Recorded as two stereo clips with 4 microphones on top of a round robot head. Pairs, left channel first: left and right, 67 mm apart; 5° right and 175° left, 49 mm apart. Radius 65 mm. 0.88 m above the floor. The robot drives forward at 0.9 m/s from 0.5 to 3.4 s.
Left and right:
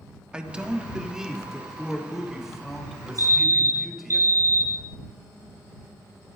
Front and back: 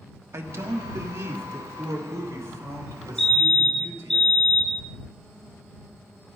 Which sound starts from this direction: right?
A fire alarm, at 3.2 s.